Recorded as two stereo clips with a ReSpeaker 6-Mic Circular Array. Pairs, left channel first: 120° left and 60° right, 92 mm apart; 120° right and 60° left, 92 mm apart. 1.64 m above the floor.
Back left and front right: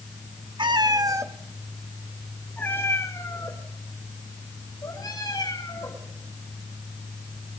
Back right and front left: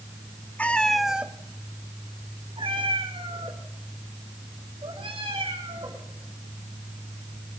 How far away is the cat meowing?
About 1.7 m.